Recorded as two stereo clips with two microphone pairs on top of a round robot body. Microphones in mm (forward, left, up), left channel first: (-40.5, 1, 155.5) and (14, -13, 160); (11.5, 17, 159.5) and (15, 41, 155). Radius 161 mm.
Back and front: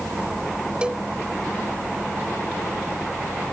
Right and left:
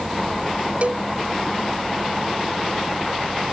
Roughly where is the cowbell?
Ahead left.